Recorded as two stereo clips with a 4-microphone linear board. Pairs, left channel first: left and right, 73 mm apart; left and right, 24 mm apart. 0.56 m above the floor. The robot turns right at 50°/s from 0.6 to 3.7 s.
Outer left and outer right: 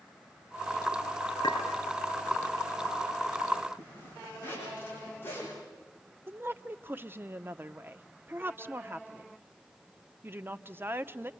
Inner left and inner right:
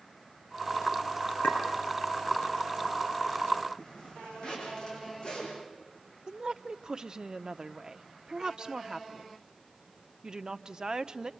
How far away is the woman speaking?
About 0.7 m.